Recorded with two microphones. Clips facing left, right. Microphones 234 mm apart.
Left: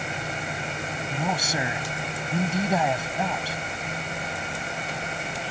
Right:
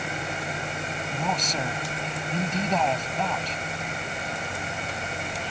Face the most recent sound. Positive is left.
turn(degrees=10)  # may be behind; listen again after turning